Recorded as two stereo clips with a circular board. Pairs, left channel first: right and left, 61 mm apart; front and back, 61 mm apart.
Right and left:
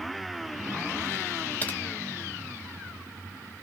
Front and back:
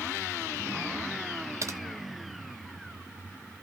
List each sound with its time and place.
1.6 s typing on a keyboard: 150° right, 1.1 m